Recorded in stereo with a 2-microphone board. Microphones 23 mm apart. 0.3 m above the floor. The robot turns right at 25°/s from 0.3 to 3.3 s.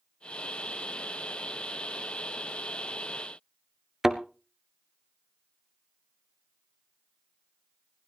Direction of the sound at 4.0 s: 15° right (ahead or behind).